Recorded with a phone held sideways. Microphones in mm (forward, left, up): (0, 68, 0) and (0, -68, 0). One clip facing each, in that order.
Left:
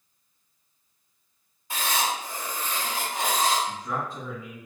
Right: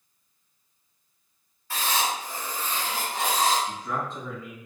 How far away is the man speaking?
About 1.5 m.